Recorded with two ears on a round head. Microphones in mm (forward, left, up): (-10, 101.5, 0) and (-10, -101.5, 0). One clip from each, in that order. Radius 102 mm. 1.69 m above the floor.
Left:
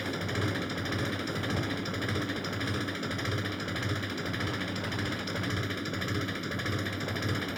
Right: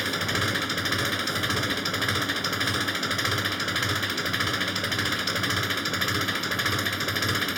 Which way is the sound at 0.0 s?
55° right (ahead or behind).